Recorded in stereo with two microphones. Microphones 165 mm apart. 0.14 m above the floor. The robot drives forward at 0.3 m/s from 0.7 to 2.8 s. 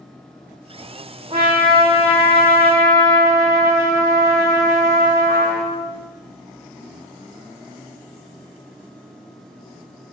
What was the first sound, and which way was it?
A trumpet, 35° right (ahead or behind).